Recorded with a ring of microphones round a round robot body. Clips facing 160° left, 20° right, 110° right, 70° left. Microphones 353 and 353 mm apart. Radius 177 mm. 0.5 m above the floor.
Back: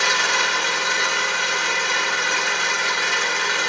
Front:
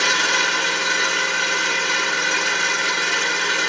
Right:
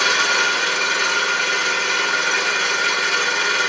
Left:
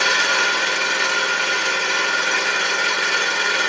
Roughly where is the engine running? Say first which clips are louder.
Front 1 dB, even; ahead right.